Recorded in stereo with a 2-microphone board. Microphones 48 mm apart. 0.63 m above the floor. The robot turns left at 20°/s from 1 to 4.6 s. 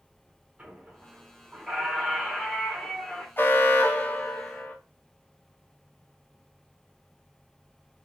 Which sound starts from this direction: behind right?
A squeak, at 0.6 s.